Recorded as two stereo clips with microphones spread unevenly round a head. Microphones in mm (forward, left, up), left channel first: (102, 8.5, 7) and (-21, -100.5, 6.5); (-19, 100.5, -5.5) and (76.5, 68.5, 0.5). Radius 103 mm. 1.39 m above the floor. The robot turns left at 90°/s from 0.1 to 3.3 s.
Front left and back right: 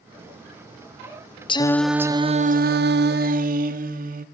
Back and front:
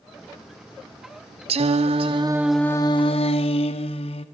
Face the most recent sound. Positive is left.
turn(degrees=180)